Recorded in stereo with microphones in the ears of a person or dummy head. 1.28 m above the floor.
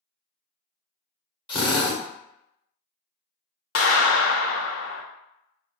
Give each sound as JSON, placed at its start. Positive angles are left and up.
{"t": 1.5, "sound": "a drill", "side_deg": 15, "distance_m": 0.8}
{"t": 3.8, "sound": "a clap", "side_deg": 75, "distance_m": 0.9}